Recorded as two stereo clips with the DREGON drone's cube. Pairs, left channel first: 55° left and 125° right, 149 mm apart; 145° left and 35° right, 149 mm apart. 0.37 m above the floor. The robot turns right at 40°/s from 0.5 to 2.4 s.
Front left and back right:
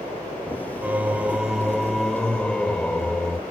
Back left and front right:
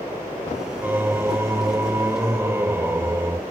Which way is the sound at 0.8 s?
75° right.